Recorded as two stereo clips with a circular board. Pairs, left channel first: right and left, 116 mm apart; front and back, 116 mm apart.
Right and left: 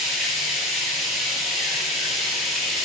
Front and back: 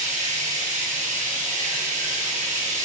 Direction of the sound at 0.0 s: 175° left.